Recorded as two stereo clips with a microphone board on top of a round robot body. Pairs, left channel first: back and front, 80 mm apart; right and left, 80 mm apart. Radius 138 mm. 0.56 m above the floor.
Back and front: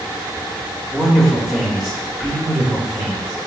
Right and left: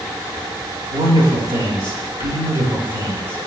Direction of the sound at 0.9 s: 85° left.